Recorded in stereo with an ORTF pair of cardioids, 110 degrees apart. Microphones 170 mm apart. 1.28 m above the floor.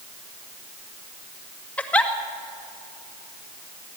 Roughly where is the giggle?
Ahead.